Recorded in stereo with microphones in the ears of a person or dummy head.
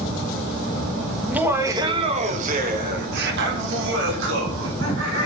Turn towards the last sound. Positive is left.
turn(degrees=-85)